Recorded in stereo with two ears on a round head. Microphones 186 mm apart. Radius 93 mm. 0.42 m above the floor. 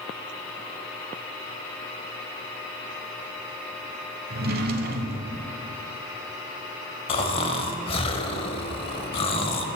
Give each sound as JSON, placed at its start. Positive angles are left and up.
{"t": 4.3, "sound": "a drawer", "side_deg": -45, "distance_m": 0.7}
{"t": 7.1, "sound": "snoring", "side_deg": 25, "distance_m": 0.6}